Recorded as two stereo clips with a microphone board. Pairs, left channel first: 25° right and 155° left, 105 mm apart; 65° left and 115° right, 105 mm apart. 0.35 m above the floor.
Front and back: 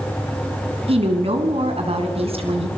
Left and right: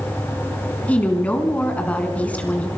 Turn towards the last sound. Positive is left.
turn(degrees=145)